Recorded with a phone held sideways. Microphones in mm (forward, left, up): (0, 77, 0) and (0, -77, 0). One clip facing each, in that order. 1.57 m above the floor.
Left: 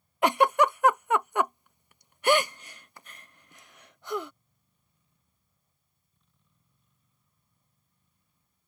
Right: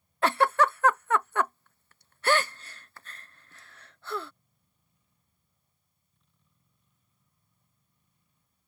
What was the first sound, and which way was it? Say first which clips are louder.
A giggle: left 2 dB; 15° left (ahead or behind).